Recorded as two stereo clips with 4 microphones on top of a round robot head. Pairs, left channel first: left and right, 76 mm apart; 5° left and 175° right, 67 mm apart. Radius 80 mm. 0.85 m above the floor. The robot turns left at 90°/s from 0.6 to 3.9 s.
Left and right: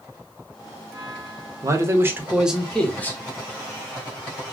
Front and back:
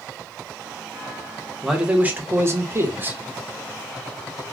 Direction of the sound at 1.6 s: 90° right.